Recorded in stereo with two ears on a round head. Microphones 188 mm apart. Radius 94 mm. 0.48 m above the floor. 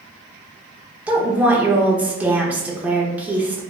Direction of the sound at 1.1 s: 5° right (ahead or behind).